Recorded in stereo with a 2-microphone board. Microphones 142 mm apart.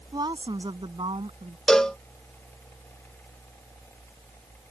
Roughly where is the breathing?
No breathing in this recording.